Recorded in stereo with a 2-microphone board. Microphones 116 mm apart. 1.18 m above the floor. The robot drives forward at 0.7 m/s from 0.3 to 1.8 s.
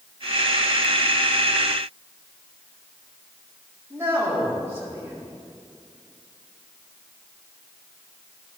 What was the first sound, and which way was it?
A man speaking, 25° right (ahead or behind).